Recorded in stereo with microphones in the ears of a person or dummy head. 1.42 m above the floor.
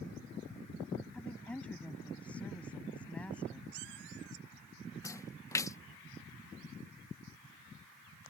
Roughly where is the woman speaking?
Centre.